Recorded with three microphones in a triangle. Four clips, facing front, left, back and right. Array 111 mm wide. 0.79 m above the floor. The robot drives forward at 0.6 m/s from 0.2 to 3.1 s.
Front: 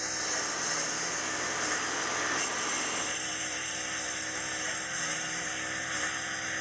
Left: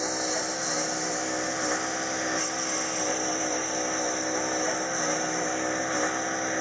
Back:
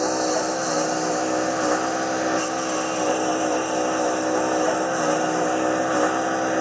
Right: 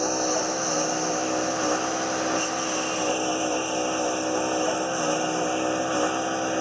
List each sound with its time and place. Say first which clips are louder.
0.0 s a lawn mower: right 5 dB, back 15 dB; 160° right; by 6.6 s 165° right